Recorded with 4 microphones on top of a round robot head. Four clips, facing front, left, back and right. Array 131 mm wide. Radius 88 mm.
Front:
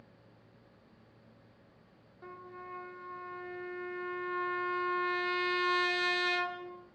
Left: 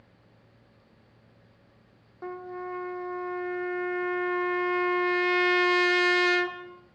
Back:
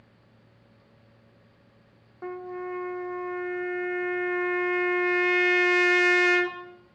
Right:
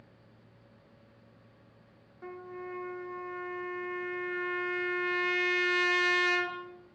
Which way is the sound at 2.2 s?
145° left.